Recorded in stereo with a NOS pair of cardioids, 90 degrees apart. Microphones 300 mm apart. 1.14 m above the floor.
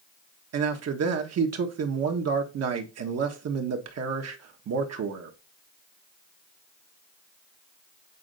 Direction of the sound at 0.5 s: 60° right.